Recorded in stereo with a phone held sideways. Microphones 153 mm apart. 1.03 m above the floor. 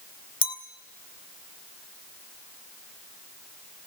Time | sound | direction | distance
0.4 | a clink | 30° left (ahead or behind) | 2 m